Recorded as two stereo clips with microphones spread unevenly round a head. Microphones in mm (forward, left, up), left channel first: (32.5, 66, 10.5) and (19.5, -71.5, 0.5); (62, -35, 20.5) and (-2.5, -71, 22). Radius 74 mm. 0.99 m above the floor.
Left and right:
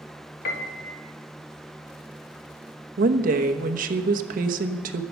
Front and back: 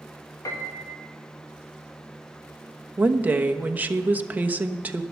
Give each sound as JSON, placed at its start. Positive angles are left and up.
{"t": 0.5, "sound": "a piano", "azimuth_deg": 75, "distance_m": 1.8}
{"t": 3.0, "sound": "a woman speaking", "azimuth_deg": -85, "distance_m": 1.1}